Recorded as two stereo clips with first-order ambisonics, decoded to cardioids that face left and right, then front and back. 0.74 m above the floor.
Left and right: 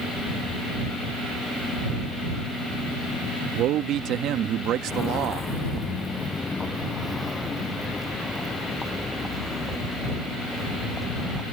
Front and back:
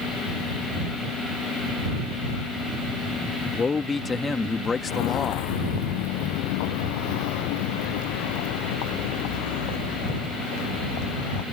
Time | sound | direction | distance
3.6 | a man speaking | 70° right | ?
4.9 | footsteps | 20° left | ?